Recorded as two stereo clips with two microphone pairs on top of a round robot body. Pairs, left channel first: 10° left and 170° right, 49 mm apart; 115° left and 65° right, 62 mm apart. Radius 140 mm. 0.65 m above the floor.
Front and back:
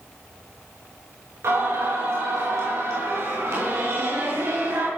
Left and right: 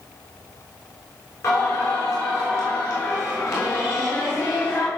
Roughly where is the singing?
Behind left.